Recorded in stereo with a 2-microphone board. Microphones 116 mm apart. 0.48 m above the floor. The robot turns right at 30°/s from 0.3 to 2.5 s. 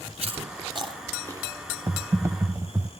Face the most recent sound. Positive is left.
turn(degrees=-25)  # may be behind; listen again after turning